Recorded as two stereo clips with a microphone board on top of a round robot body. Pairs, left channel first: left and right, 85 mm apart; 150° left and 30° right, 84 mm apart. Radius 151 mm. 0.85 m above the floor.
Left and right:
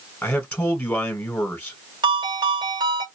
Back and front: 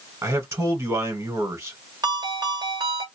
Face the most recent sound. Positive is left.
turn(degrees=-70)